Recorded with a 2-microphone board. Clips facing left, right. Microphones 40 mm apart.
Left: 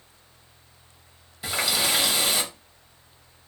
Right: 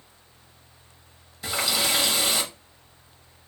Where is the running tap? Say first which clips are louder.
Even; 10° left (ahead or behind), 1.0 m.